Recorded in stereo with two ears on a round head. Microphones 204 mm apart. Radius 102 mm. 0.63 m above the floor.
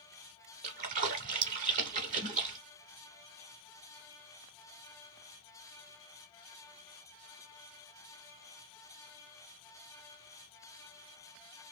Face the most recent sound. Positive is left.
turn(degrees=-35)  # may be behind; listen again after turning